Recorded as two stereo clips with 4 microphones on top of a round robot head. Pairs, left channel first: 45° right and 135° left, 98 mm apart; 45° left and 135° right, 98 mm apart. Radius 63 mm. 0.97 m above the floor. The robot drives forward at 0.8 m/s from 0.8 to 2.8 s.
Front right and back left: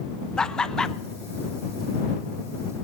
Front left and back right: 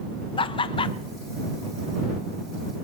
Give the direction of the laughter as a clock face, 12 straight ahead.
11 o'clock.